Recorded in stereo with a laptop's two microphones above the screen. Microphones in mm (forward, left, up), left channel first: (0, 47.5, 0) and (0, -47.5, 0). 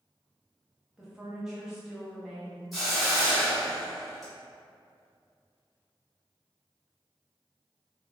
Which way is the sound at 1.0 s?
5° right (ahead or behind).